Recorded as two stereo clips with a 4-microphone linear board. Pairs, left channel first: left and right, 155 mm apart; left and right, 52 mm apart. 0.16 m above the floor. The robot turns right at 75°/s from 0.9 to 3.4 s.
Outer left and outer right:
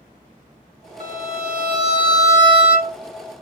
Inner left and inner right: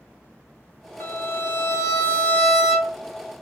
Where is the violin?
60° left, 0.8 m; by 2.9 s 155° right, 0.8 m.